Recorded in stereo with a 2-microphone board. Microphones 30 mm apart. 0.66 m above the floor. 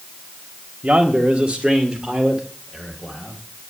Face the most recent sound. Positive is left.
turn(degrees=-10)  # may be behind; listen again after turning